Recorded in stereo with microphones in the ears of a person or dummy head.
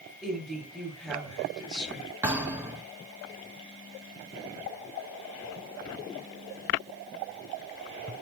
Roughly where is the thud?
Centre.